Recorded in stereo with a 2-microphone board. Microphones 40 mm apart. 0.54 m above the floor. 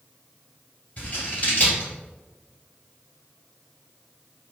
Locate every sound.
1.0 s scissors: 30° left (ahead or behind), 1.9 m